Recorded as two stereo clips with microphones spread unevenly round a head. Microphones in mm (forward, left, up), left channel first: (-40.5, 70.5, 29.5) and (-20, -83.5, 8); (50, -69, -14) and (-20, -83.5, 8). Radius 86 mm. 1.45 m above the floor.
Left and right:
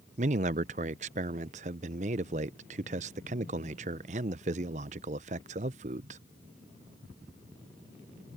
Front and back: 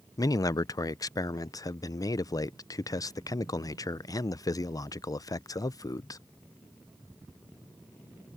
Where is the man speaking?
30° right.